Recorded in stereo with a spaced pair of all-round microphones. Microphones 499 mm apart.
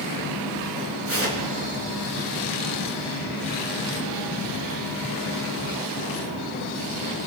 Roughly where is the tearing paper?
Right.